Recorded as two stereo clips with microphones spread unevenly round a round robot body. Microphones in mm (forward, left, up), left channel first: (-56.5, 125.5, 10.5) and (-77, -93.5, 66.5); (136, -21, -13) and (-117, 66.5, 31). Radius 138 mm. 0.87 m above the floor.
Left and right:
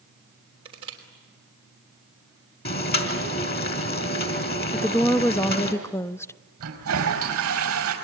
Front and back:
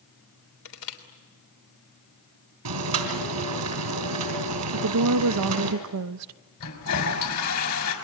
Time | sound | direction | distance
0.7 | crushing | 20° right | 3.5 m
2.6 | boiling | 130° left | 3.5 m
4.7 | a woman speaking | 150° left | 0.6 m
6.6 | a toilet flushing | 55° right | 5 m